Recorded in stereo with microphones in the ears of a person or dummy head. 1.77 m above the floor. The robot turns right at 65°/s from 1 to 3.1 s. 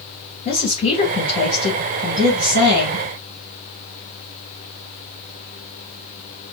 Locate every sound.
0.5 s a woman speaking: 140° left, 2.5 m; by 3.0 s 85° right, 2.5 m